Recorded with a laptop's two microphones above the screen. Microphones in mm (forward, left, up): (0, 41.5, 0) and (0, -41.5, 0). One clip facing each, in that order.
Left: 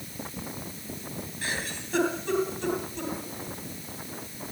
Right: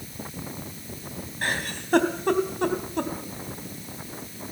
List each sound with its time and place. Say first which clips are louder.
1.4 s a giggle: right 6 dB; 60° right (ahead or behind), 3.5 m